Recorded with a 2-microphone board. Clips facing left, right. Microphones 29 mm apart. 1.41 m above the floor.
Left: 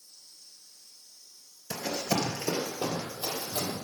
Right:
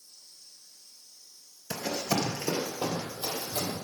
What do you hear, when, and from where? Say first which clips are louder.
1.7 s running footsteps: even; 25° right (ahead or behind), 1.5 m; by 3.8 s 40° left (ahead or behind), 3 m